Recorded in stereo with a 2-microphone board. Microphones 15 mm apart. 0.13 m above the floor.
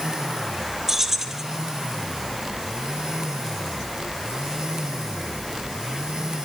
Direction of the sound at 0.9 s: 25° right (ahead or behind).